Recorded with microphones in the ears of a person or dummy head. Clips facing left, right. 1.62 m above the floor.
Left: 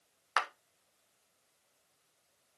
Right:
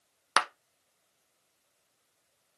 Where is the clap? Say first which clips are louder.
Right 5 dB; 60° right (ahead or behind), 0.6 m.